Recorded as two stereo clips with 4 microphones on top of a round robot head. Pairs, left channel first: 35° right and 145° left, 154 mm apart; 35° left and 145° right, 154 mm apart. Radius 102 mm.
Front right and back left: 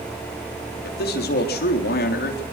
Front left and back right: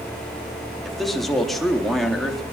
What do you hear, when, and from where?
0.8 s a man speaking: 55° right, 3.5 m